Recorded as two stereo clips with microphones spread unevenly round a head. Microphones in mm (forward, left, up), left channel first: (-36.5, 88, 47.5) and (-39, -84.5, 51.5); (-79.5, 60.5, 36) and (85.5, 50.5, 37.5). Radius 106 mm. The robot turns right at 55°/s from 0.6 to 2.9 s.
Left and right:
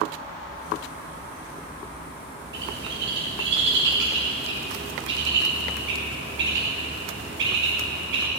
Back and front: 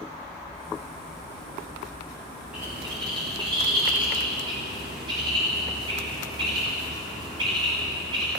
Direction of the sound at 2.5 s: 90° right.